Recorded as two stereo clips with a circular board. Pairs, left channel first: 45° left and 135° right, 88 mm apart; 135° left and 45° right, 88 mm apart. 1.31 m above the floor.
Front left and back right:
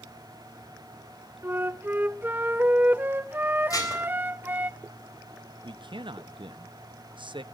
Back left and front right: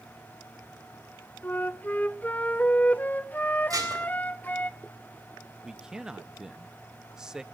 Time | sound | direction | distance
1.4 | a flute | 175° right | 0.7 m
3.7 | dishes clattering | straight ahead | 4 m
5.6 | a man speaking | 125° right | 0.7 m